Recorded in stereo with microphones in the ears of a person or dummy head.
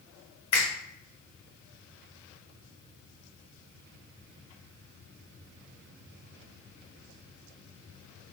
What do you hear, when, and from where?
0.5 s a finger snap: 30° left (ahead or behind), 1.0 m